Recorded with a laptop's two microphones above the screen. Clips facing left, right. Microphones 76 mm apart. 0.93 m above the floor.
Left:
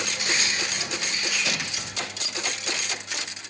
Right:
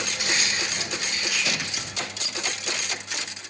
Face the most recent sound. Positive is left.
turn(degrees=-75)  # may be behind; listen again after turning